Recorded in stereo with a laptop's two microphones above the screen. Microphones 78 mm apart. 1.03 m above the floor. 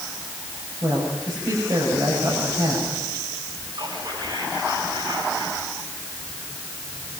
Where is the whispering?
55° right (ahead or behind), 7.5 m.